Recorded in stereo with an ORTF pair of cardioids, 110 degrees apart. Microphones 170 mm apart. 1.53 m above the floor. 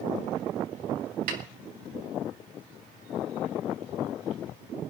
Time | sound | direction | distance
1.3 | a snare drum | 65° right | 4 m